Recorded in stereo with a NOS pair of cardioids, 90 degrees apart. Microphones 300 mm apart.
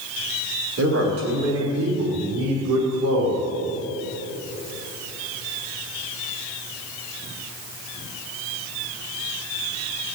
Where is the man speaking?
50° right, 5.5 m; by 3.5 s 70° right, 5 m.